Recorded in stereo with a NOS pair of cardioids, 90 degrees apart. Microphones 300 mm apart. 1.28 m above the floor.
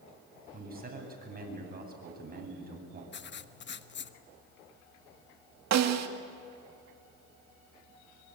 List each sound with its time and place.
0.5 s a man speaking: 30° right, 9 m
3.1 s writing: 40° left, 1.2 m
5.7 s a snare drum: 60° right, 2 m